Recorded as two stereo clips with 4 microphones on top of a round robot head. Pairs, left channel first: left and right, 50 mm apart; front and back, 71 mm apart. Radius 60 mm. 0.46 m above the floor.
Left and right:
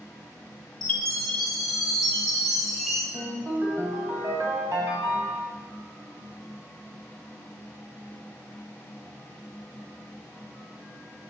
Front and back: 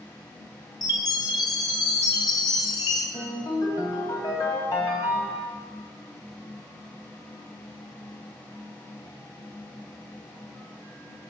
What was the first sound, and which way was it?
A chime, 5° left.